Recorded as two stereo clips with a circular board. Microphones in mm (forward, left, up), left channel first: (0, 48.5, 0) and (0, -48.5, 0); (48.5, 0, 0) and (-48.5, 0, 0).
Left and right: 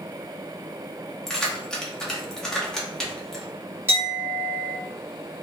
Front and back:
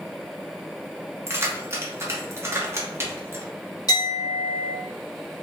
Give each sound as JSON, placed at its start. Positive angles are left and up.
{"t": 1.3, "sound": "keys jangling", "azimuth_deg": 165, "distance_m": 0.8}
{"t": 3.9, "sound": "a clink", "azimuth_deg": -30, "distance_m": 1.4}